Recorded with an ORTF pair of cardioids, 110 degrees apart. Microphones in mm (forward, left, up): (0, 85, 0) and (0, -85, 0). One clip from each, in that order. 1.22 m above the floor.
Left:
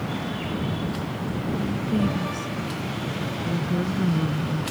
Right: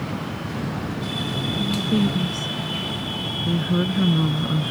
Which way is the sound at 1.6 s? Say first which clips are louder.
Right 4 dB; 30° right.